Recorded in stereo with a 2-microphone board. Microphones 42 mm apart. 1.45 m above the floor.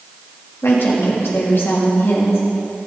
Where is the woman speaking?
80° left, 3 m.